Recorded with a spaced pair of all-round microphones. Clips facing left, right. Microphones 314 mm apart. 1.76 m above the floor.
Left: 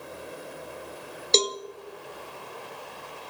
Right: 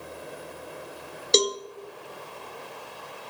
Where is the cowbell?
15° right (ahead or behind), 0.6 m.